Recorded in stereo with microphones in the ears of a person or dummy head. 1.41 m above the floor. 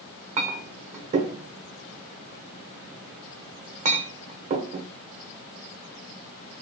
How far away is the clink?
About 0.7 m.